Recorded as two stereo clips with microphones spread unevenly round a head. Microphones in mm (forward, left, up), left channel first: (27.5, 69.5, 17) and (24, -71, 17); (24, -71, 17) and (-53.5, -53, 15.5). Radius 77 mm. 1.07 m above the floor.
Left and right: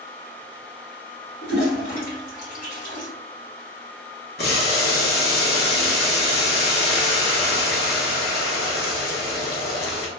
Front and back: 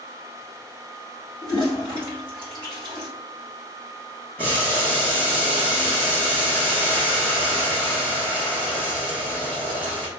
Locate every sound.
1.4 s a toilet flushing: 125° left, 2 m
4.4 s boiling: 120° left, 1.0 m